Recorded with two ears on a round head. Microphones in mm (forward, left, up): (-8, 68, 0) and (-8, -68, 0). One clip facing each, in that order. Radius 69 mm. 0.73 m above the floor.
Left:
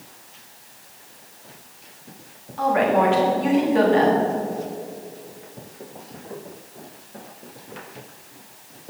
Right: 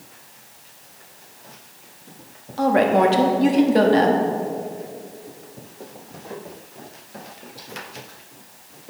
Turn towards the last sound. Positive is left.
turn(degrees=-45)  # may be behind; listen again after turning